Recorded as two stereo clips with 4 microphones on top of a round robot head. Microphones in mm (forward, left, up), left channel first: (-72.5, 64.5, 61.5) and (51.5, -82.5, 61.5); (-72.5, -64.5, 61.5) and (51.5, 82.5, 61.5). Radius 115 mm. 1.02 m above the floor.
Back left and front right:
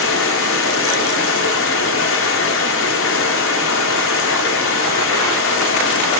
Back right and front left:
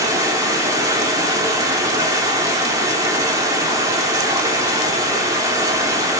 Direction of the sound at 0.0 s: 125° left.